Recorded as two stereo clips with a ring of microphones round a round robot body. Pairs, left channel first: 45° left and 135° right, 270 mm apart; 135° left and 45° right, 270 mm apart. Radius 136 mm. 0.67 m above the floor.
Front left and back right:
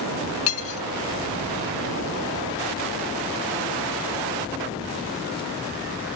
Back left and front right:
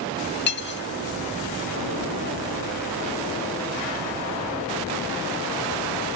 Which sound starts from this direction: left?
Cutlery clinking, at 0.5 s.